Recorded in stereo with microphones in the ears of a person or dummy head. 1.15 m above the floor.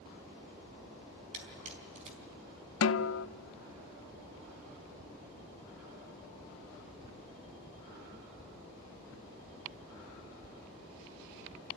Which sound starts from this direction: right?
A camera shutter, at 1.3 s.